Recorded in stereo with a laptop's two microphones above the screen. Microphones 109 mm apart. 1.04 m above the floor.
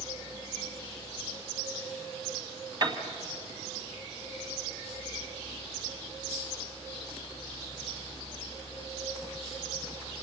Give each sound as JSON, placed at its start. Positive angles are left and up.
{"t": 0.0, "sound": "a fan", "side_deg": 30, "distance_m": 3.5}
{"t": 2.8, "sound": "a piano", "side_deg": -45, "distance_m": 2.0}